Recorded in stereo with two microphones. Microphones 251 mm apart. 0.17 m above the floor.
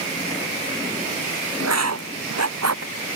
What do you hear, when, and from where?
1.6 s writing: 75° right (ahead or behind)